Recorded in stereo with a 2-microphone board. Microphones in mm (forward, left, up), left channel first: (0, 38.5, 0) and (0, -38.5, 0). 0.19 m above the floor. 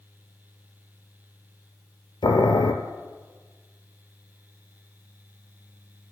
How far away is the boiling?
About 0.6 m.